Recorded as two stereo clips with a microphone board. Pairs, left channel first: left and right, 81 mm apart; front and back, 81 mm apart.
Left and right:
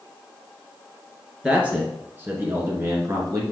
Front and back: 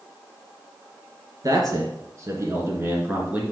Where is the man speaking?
165° right, 2.5 m; by 3.5 s 115° right, 2 m.